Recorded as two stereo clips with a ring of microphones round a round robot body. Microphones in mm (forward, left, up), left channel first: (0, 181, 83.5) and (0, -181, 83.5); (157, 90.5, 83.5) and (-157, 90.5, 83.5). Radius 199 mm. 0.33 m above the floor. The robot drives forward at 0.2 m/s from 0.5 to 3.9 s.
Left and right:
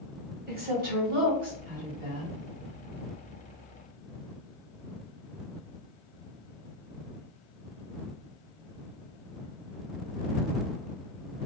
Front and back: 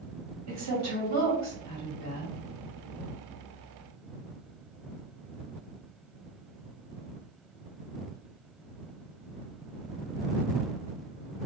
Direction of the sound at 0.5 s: 150° right.